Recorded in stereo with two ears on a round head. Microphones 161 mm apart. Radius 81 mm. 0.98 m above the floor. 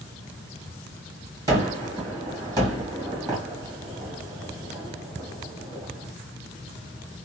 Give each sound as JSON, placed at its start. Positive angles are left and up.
{"t": 1.5, "sound": "a gunshot", "side_deg": -20, "distance_m": 1.5}